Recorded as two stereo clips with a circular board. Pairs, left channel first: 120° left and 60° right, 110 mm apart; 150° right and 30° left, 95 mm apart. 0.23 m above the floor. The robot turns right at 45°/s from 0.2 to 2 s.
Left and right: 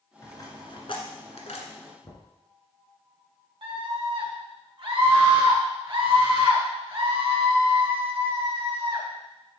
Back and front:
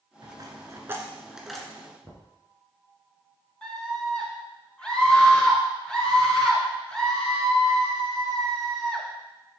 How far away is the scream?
About 2.5 m.